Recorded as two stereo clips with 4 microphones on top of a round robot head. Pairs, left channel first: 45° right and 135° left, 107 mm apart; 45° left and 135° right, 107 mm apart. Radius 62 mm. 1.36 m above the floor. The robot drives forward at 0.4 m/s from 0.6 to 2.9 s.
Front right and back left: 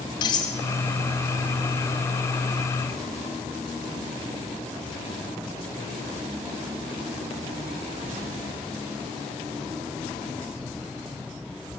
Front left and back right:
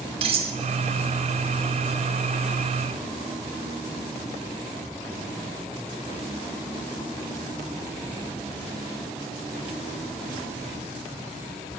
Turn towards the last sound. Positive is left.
turn(degrees=-135)